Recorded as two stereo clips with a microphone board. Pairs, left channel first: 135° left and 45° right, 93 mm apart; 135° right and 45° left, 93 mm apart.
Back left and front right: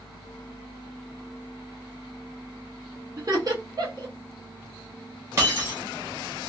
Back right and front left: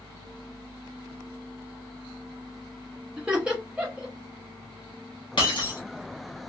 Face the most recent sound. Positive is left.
turn(degrees=-100)